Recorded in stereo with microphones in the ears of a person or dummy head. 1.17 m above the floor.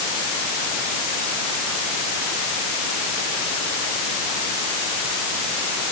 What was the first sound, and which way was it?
Only background noise.